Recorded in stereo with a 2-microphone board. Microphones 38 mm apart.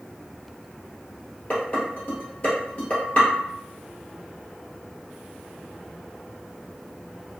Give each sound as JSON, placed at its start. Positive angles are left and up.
{"t": 1.5, "sound": "dishes clattering", "side_deg": 35, "distance_m": 1.5}